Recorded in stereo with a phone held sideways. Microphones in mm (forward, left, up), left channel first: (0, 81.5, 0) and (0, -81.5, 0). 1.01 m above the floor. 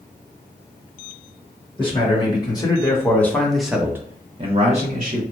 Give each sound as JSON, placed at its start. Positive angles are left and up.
{"t": 1.8, "sound": "a man speaking", "side_deg": 30, "distance_m": 1.5}